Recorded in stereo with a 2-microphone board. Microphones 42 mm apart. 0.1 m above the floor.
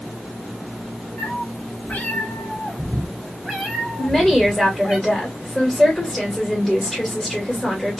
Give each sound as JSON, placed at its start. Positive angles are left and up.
{"t": 1.2, "sound": "a cat meowing", "side_deg": 50, "distance_m": 1.3}
{"t": 4.0, "sound": "a woman speaking", "side_deg": 10, "distance_m": 1.8}